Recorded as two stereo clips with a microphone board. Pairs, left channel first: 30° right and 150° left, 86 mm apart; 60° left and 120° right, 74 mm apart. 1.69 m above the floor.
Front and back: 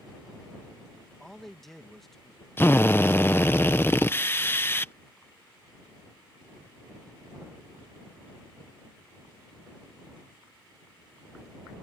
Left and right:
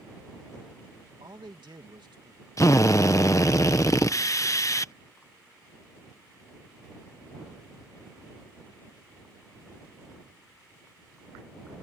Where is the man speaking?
115° right.